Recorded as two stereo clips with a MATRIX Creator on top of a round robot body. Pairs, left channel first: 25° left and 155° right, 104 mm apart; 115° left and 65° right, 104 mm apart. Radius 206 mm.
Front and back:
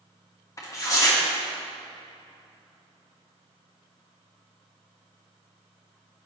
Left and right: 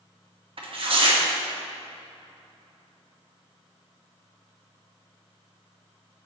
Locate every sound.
0.6 s tearing paper: 35° right, 1.8 m